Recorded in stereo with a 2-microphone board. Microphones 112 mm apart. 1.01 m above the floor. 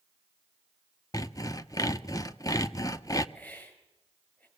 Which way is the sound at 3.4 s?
15° left (ahead or behind).